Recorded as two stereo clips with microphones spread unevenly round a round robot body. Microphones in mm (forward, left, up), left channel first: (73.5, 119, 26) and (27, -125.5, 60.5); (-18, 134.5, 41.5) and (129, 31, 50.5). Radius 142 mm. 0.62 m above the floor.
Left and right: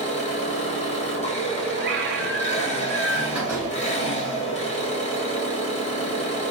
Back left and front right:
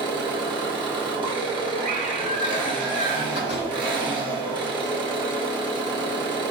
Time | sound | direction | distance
0.0 | an engine running | 25° left | 1.3 m
1.8 | a scream | 65° right | 0.9 m
3.4 | a door slam | 175° left | 1.9 m